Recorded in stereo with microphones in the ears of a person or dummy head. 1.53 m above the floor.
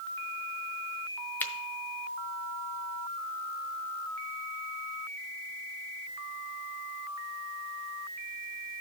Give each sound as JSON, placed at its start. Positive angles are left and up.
{"t": 1.4, "sound": "a finger snap", "side_deg": 5, "distance_m": 0.7}